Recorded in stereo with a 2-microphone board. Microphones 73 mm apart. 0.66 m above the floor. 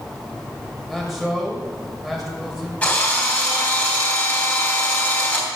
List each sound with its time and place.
0.9 s a man speaking: centre (ahead or behind), 3.5 m
2.8 s a drill: 20° left (ahead or behind), 3.5 m